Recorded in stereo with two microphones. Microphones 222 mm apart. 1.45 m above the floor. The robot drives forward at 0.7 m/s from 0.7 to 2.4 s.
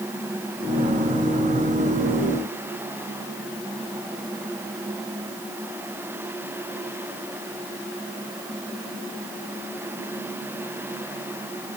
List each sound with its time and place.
Only background noise.